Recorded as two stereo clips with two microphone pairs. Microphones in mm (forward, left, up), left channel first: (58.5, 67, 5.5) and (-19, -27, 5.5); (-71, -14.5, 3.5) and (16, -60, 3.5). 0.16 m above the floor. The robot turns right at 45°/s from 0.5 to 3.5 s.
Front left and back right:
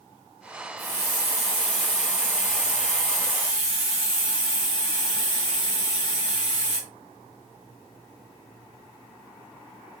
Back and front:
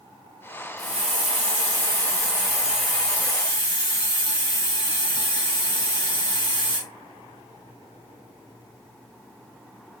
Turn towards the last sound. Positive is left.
turn(degrees=90)